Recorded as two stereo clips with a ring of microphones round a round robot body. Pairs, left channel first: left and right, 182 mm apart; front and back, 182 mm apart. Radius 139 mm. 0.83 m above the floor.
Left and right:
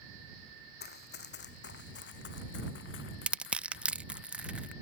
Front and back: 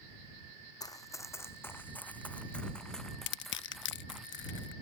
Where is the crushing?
5° right.